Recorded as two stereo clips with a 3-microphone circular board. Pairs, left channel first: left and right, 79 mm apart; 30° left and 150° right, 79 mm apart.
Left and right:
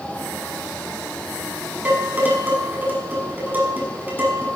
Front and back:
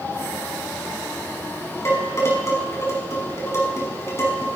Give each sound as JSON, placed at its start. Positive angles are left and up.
{"t": 1.9, "sound": "dishes clattering", "azimuth_deg": -25, "distance_m": 5.5}